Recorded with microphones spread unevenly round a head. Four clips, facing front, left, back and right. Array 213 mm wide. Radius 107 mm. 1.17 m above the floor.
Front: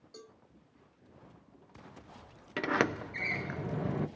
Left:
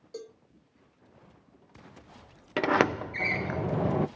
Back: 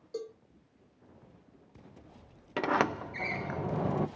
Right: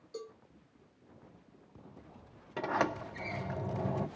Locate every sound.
0.1 s a cowbell: 155° left, 3 m
2.6 s a sliding door: 80° left, 0.5 m